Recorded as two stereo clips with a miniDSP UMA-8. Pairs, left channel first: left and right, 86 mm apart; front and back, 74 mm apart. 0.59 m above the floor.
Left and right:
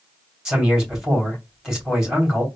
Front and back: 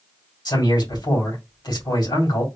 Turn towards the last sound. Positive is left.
turn(degrees=-5)